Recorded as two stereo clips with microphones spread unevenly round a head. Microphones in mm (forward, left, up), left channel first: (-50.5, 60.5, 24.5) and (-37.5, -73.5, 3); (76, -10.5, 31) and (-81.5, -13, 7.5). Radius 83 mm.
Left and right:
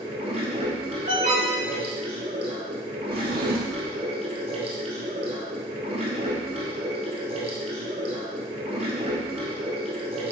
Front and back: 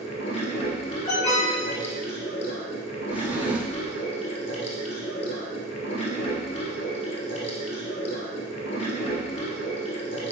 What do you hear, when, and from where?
0.0 s running water: 30° right, 1.7 m
1.1 s an alarm: 55° right, 3 m
3.1 s a drawer: 95° right, 1.0 m